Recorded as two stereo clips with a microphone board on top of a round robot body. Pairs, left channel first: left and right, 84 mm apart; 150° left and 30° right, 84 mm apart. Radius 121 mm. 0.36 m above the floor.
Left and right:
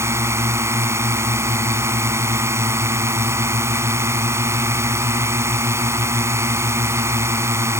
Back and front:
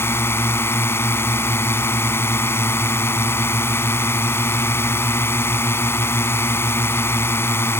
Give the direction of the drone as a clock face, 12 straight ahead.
5 o'clock.